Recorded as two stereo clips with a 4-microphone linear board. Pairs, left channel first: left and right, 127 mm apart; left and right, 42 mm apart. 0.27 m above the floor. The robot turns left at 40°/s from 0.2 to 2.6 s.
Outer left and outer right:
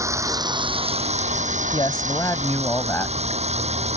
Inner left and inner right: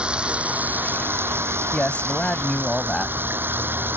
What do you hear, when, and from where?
0.0 s running water: 25° right; by 4.0 s 120° right
1.7 s a man speaking: 60° left; by 3.2 s 25° left